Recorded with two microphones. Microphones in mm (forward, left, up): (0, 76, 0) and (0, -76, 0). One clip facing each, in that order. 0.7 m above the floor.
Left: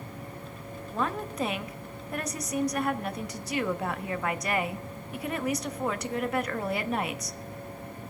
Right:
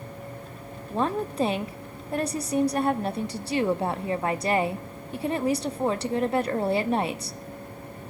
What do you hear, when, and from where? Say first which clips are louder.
0.9 s a woman speaking: right 5 dB; 30° right (ahead or behind), 0.5 m